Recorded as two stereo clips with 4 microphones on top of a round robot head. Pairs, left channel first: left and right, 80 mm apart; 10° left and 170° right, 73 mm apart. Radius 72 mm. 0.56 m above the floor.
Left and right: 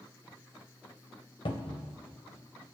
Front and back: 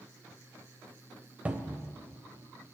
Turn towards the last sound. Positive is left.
turn(degrees=120)